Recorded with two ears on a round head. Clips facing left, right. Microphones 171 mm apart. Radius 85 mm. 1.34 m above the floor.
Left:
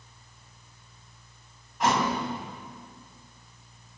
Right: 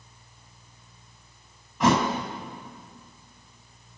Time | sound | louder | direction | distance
1.8 | a thud | right 4 dB | 70° right (ahead or behind) | 3.5 m